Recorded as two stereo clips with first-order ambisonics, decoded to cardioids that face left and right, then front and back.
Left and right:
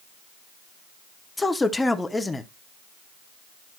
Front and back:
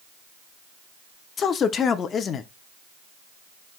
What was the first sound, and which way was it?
A man speaking, 15° left.